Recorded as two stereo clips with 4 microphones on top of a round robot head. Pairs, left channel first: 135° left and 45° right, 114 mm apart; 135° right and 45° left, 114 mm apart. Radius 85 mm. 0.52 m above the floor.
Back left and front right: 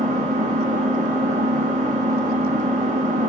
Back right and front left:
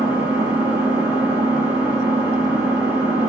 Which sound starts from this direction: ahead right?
An engine running, at 0.0 s.